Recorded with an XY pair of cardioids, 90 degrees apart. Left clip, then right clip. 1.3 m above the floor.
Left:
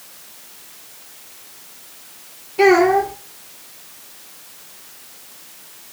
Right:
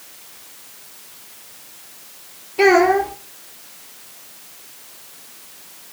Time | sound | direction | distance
2.6 | a child speaking | 5° right | 0.9 m